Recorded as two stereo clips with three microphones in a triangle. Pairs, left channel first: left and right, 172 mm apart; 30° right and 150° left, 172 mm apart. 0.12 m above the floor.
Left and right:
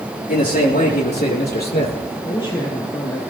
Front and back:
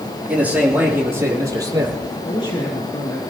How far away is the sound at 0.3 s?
About 4.5 m.